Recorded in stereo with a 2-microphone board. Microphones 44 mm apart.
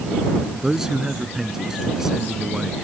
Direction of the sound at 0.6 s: 15° right (ahead or behind).